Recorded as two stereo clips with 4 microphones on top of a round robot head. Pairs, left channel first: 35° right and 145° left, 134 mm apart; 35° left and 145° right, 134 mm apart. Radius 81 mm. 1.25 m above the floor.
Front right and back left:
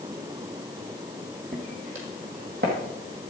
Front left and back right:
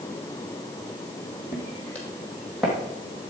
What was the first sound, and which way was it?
Footsteps, 100° left.